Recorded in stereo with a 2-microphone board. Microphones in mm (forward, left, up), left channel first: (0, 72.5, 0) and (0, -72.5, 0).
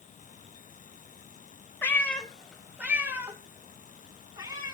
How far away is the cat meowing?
About 1.5 m.